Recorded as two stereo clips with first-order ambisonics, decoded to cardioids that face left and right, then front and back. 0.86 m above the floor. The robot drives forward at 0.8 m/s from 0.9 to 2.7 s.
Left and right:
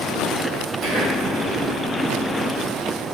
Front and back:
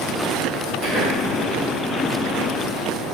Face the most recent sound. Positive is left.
turn(degrees=-140)